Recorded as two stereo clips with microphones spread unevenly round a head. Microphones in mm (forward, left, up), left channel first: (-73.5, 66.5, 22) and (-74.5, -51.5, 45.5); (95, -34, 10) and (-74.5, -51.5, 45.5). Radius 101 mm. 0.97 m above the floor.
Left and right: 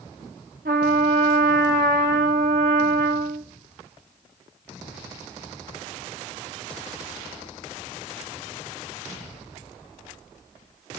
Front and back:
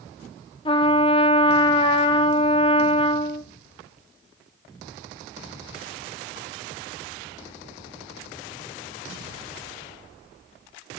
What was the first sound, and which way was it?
A trumpet, 55° right.